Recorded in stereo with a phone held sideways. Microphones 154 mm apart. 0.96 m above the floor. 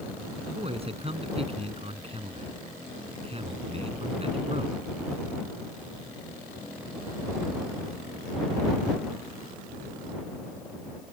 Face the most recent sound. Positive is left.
turn(degrees=-40)  # may be behind; listen again after turning